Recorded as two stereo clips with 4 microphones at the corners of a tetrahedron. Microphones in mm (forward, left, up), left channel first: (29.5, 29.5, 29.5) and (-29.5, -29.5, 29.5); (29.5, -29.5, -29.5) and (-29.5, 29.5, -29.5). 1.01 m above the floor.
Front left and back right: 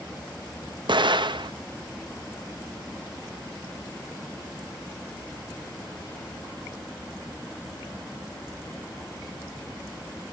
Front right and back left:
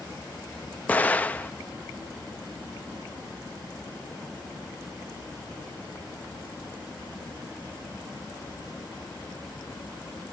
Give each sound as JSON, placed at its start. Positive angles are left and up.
{"t": 0.9, "sound": "an explosion", "azimuth_deg": -115, "distance_m": 0.6}